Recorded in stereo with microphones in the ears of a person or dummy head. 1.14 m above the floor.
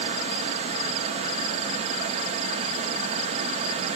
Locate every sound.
0.0 s a fan: 35° right (ahead or behind), 0.8 m